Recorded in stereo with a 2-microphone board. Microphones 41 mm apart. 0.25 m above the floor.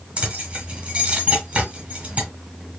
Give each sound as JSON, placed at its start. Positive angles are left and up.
{"t": 0.2, "sound": "keys jangling", "side_deg": -25, "distance_m": 1.4}